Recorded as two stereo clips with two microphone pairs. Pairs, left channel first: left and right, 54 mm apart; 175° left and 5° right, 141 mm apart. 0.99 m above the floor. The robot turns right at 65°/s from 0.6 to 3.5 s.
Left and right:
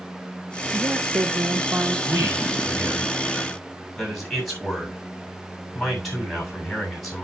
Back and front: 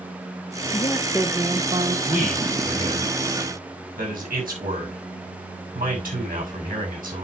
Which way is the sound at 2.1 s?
95° right.